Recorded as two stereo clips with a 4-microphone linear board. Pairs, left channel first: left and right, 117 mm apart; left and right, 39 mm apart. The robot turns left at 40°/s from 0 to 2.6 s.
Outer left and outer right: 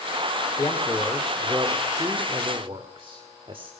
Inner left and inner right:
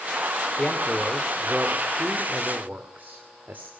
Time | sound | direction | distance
0.6 | a man speaking | 30° left | 2 m